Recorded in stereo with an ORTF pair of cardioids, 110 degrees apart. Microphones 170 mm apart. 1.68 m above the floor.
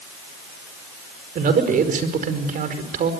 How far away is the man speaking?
About 5 m.